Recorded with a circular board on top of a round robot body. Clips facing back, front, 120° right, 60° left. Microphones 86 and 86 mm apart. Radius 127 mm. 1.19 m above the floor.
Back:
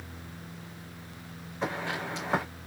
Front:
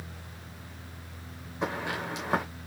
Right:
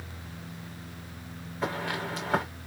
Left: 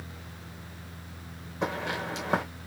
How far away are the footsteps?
About 3 m.